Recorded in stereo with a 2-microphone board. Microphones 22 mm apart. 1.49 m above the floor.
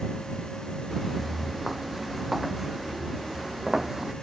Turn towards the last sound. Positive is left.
turn(degrees=-20)  # may be behind; listen again after turning